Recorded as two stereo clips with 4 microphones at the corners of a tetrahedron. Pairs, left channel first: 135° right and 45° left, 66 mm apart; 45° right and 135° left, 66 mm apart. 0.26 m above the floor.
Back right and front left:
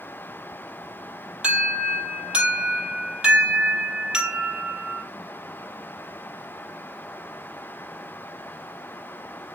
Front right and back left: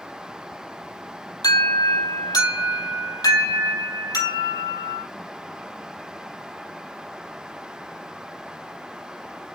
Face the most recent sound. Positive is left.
turn(degrees=-30)